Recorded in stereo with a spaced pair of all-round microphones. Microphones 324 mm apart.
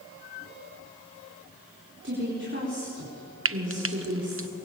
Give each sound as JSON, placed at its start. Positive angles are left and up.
{"t": 2.0, "sound": "a woman speaking", "side_deg": -35, "distance_m": 4.5}
{"t": 3.5, "sound": "frying", "side_deg": -40, "distance_m": 0.6}